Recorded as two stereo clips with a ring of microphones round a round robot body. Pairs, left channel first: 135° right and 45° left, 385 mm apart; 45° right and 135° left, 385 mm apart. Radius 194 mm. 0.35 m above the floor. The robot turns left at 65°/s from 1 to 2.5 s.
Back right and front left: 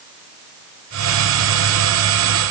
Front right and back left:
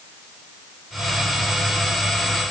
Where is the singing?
No singing in this recording.